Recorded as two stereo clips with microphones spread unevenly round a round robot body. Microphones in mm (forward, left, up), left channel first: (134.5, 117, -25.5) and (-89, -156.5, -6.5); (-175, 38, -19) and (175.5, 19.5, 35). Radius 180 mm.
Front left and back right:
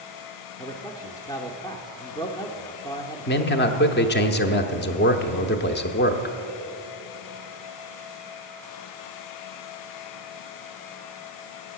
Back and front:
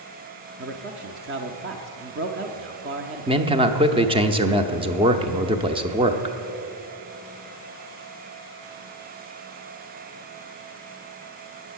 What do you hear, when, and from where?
0.6 s a man speaking: straight ahead, 0.8 m
3.3 s a man speaking: 75° left, 0.8 m